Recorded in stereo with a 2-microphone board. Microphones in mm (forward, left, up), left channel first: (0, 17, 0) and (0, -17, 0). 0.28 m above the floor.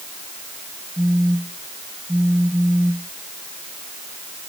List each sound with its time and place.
1.0 s a phone buzzing: 25° right (ahead or behind)